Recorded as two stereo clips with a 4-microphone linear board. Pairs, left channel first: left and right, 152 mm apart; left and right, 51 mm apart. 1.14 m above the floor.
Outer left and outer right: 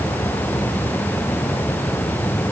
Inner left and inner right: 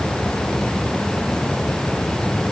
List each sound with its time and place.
Only background noise.